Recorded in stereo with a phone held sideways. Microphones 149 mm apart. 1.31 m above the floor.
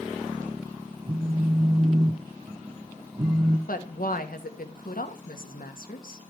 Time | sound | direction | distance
1.1 | a phone buzzing | 25° right (ahead or behind) | 0.6 m
3.7 | a woman speaking | 70° left (ahead or behind) | 1.5 m